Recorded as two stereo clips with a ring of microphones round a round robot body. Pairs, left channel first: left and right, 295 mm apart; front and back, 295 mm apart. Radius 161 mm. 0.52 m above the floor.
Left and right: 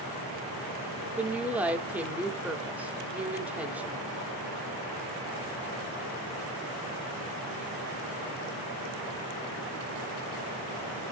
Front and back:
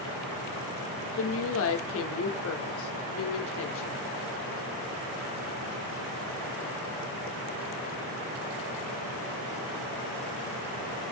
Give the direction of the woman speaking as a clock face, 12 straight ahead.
12 o'clock.